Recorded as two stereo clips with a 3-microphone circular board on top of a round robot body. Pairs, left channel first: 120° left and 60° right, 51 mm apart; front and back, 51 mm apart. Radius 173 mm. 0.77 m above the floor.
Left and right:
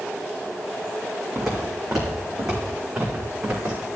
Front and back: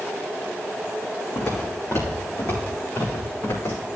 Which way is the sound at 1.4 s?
30° left.